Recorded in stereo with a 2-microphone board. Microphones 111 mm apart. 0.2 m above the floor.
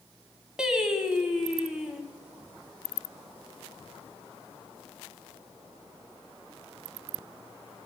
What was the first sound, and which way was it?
Singing, 5° right (ahead or behind).